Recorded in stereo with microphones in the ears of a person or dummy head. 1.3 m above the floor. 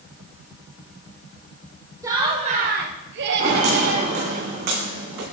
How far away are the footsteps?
About 3 m.